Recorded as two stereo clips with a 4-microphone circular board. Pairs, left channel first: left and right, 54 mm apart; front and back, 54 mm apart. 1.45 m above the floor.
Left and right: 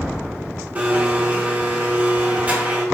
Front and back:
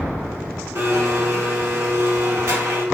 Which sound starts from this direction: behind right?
A blender, at 0.8 s.